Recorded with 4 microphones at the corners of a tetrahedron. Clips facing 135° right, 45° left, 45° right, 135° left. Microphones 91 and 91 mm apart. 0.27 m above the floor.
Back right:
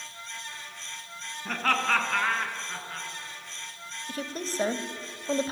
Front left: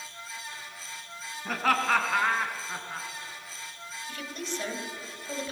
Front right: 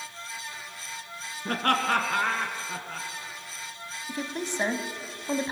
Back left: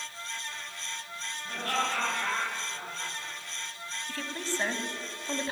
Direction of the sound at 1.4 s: 40° right.